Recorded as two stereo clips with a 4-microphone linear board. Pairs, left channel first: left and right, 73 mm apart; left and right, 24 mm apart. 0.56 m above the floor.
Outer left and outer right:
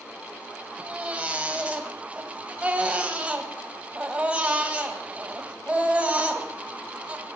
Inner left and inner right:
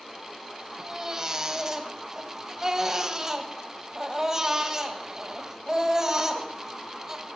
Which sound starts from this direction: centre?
A baby crying, at 0.8 s.